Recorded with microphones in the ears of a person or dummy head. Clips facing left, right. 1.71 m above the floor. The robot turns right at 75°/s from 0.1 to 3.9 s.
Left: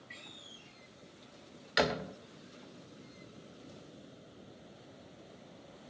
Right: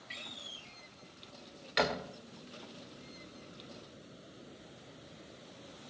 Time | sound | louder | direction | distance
0.1 | a door slam | right 2 dB | 25° right (ahead or behind) | 0.6 m